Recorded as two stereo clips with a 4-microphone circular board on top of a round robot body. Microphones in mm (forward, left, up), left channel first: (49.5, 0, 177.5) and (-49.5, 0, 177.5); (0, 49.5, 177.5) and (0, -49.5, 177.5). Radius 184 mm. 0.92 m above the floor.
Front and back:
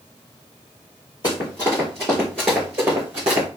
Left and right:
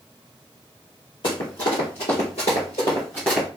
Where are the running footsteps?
50° left, 1.6 m; by 3.5 s 175° left, 1.0 m.